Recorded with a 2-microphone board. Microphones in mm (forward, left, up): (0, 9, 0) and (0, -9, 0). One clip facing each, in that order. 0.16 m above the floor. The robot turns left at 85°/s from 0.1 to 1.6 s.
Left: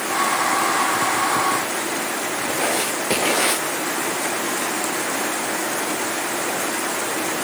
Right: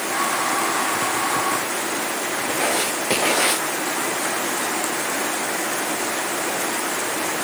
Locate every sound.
2.5 s writing: centre (ahead or behind)